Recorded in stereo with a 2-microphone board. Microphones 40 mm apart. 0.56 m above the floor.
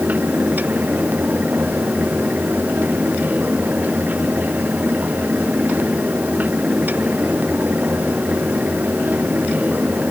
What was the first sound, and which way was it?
Only background noise.